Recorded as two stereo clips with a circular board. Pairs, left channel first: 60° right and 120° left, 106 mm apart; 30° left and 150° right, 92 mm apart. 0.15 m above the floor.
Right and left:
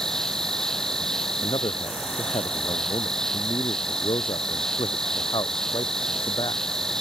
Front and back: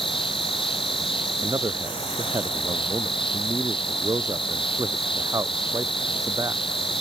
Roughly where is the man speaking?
Right.